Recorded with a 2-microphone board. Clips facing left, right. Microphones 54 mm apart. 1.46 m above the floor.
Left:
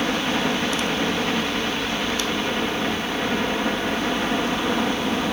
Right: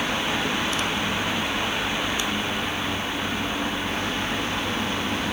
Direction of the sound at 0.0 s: 50° left (ahead or behind).